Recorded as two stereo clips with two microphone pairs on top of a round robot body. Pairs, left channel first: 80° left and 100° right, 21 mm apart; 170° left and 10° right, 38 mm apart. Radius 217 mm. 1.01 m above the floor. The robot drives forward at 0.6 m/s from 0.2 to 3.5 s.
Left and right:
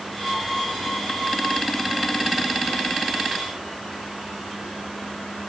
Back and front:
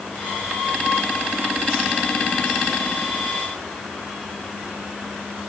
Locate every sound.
Only background noise.